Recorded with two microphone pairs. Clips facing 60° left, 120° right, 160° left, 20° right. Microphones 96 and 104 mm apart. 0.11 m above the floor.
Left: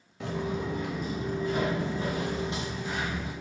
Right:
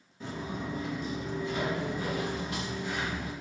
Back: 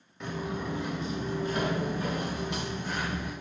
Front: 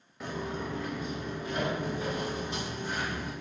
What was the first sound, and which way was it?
Footsteps, 65° left.